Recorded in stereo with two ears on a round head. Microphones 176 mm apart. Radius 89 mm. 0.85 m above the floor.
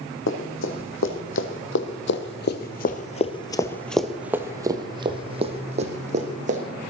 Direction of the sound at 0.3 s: 70° left (ahead or behind).